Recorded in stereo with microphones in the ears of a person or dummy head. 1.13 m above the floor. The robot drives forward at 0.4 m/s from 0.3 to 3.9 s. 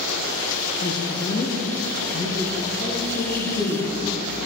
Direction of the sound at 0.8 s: 20° left (ahead or behind).